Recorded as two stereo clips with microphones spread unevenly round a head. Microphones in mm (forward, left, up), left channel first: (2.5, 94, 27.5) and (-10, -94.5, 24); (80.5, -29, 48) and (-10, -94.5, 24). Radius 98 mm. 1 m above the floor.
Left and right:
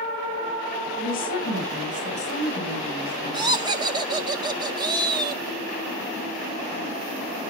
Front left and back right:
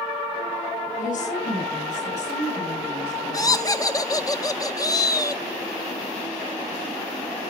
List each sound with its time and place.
1.0 s a woman speaking: 40° left, 6.5 m; by 3.6 s 20° left, 5 m
3.3 s laughter: 25° right, 2.0 m